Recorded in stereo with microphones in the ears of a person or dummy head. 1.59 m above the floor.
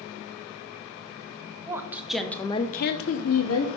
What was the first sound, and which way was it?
A woman speaking, 15° right (ahead or behind).